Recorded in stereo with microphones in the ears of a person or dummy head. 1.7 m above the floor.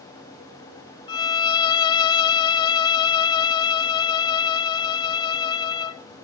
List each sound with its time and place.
1.1 s a violin: 30° left (ahead or behind), 0.6 m